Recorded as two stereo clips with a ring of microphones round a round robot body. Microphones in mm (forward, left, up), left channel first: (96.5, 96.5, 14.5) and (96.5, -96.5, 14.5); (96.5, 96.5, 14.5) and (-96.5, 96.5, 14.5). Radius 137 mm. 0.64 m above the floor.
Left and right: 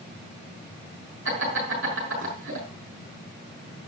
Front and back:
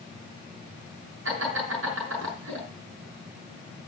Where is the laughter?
135° right, 6 m.